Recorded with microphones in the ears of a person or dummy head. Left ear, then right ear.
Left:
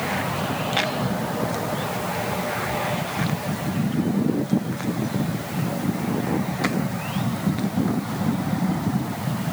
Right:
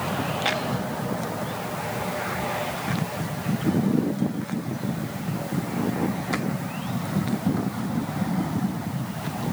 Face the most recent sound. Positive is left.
No sound to turn to.